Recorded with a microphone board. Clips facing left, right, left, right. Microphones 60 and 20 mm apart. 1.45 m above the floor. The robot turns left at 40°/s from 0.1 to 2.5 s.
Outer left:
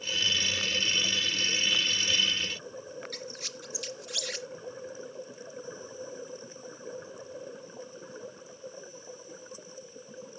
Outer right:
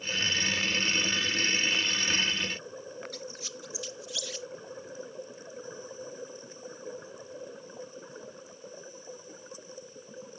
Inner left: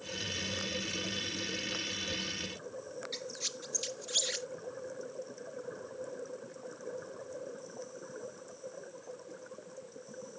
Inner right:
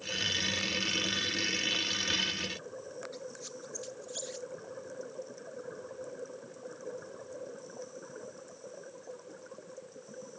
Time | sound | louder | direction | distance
3.1 | a squeak | even, inner left 5 dB | 65° left (ahead or behind) | ?